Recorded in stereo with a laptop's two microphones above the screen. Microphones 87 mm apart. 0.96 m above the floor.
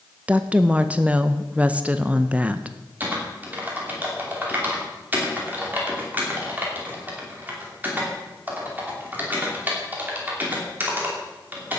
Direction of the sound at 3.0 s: 20° right (ahead or behind).